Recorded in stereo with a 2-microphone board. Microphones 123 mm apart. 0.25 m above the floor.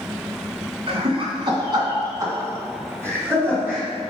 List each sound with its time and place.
0.9 s laughter: 50° right (ahead or behind), 2 m; by 3.9 s 15° right (ahead or behind), 2.5 m